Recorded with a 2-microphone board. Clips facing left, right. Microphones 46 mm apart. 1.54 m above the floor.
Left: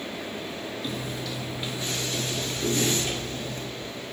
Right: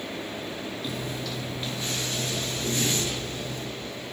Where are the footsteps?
Centre (ahead or behind), 1.6 m; by 3.7 s 40° left (ahead or behind), 1.9 m.